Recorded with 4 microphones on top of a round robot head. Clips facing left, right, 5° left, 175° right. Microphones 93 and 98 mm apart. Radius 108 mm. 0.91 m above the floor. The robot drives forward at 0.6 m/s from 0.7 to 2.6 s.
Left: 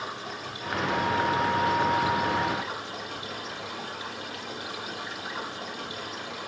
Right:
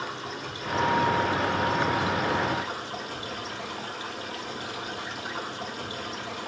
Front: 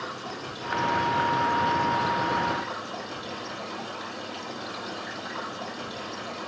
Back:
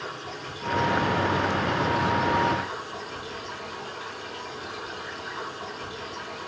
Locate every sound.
0.0 s running water: 35° right, 6.5 m; by 6.5 s 40° right, 5.5 m